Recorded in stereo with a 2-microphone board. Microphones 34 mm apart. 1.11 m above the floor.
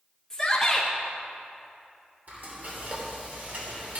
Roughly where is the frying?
Right.